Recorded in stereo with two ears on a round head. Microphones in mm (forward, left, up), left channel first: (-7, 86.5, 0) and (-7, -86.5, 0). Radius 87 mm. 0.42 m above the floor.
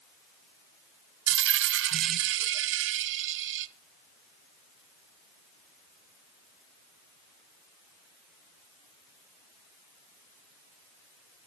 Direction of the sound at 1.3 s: 70° right (ahead or behind).